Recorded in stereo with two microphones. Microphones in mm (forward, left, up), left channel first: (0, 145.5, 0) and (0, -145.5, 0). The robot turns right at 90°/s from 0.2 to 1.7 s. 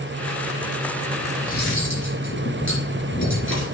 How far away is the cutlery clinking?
About 3 m.